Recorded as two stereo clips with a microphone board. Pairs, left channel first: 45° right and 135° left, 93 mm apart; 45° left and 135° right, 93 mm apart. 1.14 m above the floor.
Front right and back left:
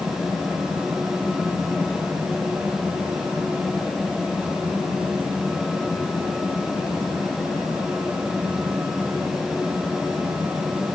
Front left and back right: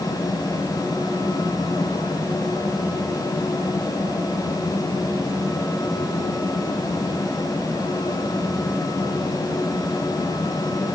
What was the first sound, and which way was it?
Only background noise.